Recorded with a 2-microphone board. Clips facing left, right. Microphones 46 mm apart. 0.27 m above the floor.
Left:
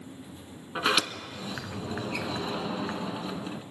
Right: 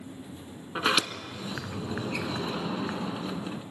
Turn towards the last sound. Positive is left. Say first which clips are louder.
# even
turn(degrees=-5)  # may be behind; listen again after turning